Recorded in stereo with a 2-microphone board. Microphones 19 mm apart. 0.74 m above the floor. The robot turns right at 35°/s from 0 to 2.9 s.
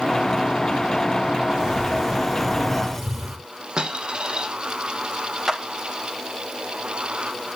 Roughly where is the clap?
Right.